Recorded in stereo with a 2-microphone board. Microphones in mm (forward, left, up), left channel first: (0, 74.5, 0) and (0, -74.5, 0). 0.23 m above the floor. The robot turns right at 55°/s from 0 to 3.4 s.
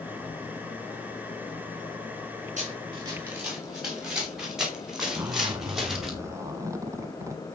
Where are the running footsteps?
55° right (ahead or behind), 7 m; by 6.1 s centre (ahead or behind), 3.5 m.